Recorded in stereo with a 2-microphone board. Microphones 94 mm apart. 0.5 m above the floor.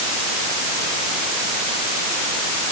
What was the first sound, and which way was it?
Only background noise.